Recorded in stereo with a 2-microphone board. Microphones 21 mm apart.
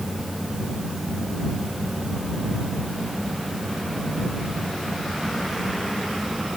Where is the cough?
No cough in this recording.